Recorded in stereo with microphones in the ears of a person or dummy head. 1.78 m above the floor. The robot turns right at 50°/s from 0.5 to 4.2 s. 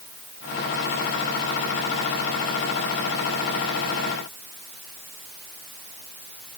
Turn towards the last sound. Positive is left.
No sound to turn to.